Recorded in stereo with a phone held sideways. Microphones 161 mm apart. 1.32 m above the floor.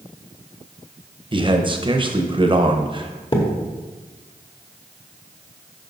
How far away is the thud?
About 1.2 m.